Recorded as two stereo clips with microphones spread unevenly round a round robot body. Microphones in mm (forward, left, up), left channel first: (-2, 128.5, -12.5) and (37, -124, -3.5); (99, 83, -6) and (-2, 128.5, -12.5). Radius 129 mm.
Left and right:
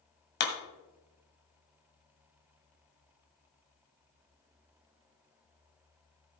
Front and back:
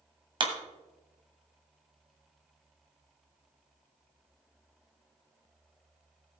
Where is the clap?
135° left, 1.7 m.